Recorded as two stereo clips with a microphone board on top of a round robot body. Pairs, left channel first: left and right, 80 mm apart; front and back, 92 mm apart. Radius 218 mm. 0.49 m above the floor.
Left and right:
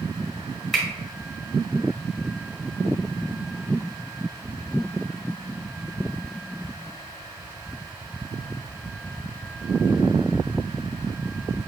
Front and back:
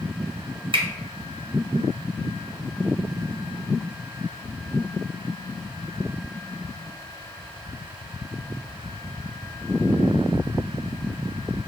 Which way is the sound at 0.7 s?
175° left.